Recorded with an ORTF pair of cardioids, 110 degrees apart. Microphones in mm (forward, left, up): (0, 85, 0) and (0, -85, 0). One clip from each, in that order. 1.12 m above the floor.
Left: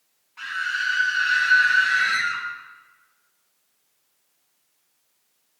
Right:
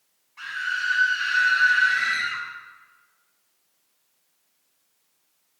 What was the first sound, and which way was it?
A scream, 15° left.